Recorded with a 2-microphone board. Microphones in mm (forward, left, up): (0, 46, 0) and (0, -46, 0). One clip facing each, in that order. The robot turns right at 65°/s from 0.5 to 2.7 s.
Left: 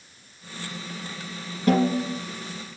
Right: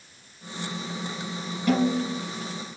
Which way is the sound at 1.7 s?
35° left.